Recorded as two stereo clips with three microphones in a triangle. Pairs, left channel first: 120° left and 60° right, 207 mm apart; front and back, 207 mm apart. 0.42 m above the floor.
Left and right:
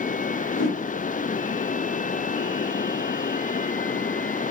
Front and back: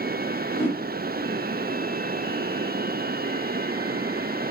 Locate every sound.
0.5 s a whoosh: 100° left, 2 m